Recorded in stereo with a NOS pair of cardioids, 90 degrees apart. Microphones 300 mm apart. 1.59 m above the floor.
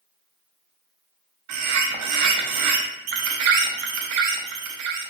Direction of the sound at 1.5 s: 65° right.